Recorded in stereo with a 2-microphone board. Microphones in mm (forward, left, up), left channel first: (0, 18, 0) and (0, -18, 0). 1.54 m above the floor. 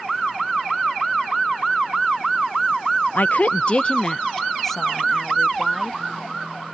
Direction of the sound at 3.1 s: 55° left (ahead or behind).